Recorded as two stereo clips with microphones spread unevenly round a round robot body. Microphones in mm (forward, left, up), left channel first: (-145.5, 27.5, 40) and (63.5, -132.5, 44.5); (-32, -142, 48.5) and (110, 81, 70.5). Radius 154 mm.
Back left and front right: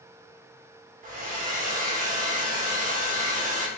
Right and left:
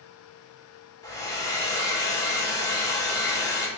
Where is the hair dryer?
65° right, 1.5 m.